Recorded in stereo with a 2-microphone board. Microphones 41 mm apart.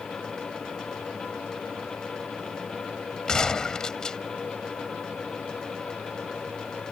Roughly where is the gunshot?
Centre.